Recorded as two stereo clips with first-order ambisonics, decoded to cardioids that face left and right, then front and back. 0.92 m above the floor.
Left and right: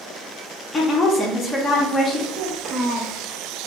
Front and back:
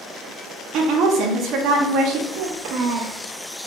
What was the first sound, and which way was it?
A woman speaking, 160° left.